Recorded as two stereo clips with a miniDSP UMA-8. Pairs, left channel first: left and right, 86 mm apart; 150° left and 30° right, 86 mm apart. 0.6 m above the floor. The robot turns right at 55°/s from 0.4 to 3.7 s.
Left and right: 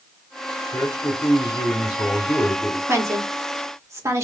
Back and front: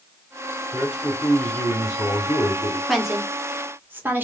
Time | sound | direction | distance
0.7 | a man speaking | 35° left | 1.8 m
2.9 | a woman speaking | 120° right | 1.2 m